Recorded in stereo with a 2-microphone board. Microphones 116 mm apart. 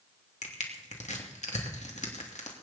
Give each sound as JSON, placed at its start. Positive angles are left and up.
{"t": 0.4, "sound": "crushing", "side_deg": 80, "distance_m": 2.5}